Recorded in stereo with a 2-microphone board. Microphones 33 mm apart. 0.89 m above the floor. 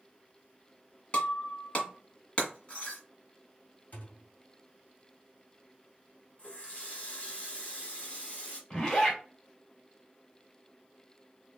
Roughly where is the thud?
Left.